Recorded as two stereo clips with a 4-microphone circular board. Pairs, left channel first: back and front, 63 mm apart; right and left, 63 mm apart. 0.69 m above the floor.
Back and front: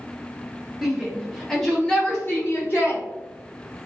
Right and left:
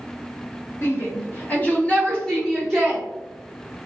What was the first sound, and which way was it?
A shout, 80° right.